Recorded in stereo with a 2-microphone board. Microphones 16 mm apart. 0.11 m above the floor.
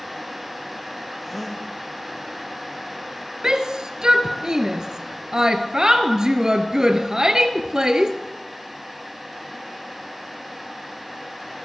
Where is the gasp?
10° left (ahead or behind), 4 m.